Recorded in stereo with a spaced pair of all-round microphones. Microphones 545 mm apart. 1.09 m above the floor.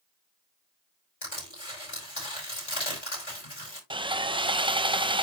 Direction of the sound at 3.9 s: 10° right (ahead or behind).